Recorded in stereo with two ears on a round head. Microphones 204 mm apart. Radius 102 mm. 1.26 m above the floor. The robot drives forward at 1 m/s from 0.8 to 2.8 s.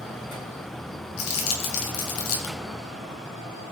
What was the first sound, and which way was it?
Crumpling, 65° left (ahead or behind).